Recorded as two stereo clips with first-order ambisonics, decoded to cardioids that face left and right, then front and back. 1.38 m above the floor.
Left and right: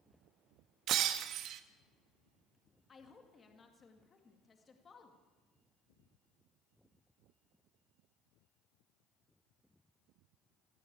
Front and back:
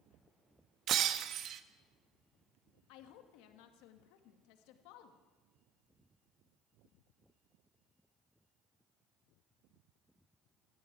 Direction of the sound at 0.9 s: 130° right.